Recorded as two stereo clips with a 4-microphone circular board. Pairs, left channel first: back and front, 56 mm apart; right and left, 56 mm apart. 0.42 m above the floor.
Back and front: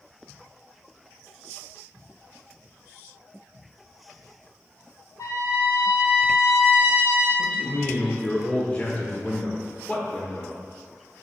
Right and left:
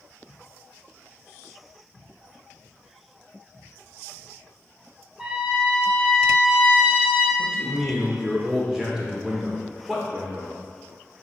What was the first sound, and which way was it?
A trumpet, 165° left.